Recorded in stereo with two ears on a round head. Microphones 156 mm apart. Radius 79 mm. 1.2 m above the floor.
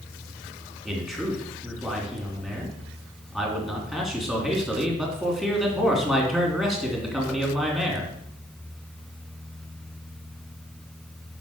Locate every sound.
0.8 s a man speaking: centre (ahead or behind), 3 m